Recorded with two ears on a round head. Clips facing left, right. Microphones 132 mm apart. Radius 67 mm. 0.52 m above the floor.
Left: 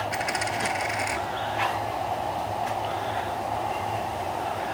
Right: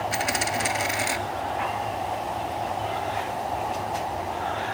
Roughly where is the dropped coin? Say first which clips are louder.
Right 1 dB; right.